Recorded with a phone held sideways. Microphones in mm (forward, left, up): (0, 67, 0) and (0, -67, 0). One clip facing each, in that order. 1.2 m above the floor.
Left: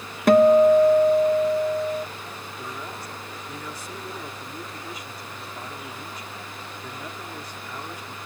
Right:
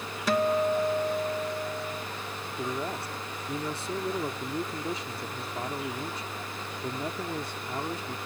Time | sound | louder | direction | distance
0.3 | a guitar | left 12 dB | 55° left (ahead or behind) | ?
2.6 | a man speaking | right 5 dB | 30° right (ahead or behind) | ?